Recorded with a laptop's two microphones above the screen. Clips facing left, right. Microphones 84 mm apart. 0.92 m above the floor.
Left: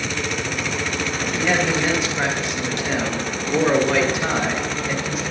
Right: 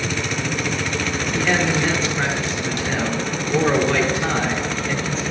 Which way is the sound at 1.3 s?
10° left (ahead or behind).